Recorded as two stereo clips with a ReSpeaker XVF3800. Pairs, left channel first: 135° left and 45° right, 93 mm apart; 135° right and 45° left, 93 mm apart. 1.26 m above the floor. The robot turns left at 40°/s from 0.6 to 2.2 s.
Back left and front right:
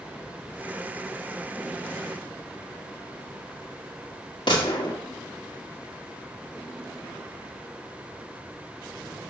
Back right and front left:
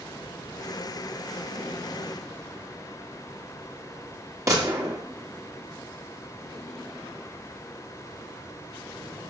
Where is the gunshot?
100° left, 2.0 m.